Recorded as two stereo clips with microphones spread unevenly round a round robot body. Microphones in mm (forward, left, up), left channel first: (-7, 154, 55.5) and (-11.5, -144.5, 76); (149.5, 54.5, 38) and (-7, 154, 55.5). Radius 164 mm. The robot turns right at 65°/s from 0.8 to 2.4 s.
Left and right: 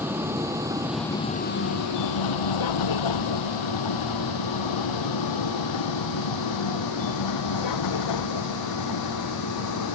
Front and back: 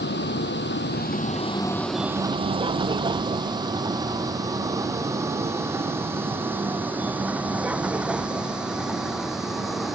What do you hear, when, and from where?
0.0 s a vehicle: 5° right; by 10.0 s 60° left